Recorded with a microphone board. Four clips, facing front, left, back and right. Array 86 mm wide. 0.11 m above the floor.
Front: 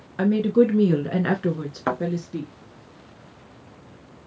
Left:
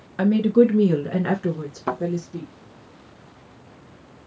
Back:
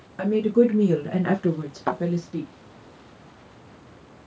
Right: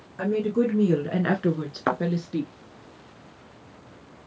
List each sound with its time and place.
0.2 s a woman speaking: 65° left, 1.2 m; by 2.5 s 80° right, 1.4 m
1.9 s a thud: 65° right, 3.5 m